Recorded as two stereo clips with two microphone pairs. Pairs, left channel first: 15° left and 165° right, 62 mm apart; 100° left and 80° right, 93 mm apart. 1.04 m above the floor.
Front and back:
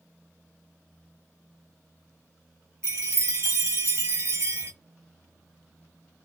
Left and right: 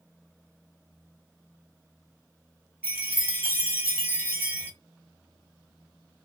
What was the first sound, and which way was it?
A chime, 145° right.